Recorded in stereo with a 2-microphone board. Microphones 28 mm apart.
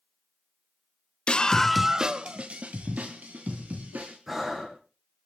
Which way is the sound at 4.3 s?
10° right (ahead or behind).